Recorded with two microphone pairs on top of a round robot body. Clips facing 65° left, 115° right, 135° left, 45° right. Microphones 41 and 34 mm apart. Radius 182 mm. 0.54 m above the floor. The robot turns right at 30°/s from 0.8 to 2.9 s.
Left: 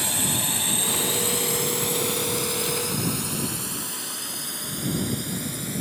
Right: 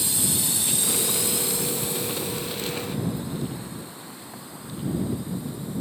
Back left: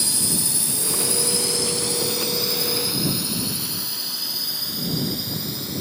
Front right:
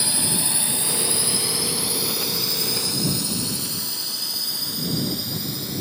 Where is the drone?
25° left; by 5.8 s 50° left.